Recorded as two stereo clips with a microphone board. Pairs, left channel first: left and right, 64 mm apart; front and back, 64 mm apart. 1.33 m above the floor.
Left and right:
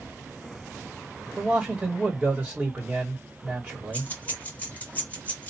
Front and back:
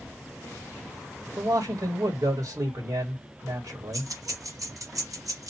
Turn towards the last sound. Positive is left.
turn(degrees=155)